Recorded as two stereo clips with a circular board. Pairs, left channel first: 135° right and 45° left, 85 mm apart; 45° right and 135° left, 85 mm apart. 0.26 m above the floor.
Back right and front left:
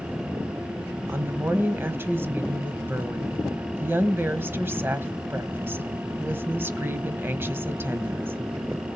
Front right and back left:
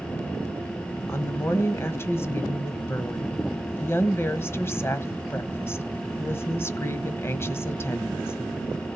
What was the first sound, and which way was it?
A woman speaking, straight ahead.